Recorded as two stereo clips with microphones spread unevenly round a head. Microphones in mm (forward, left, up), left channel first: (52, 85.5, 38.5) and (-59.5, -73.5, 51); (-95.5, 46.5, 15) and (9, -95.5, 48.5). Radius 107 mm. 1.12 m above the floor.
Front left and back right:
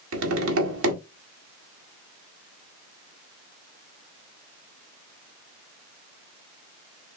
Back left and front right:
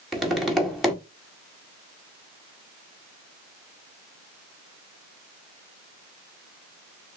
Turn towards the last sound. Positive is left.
turn(degrees=-140)